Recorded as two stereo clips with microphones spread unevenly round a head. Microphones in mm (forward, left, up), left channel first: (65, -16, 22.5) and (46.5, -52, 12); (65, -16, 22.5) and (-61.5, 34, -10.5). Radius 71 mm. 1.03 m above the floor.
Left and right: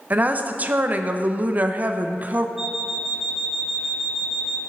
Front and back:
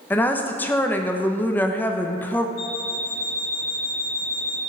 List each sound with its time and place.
0.1 s a woman speaking: 105° right, 0.7 m
2.6 s an alarm clock: 35° right, 1.0 m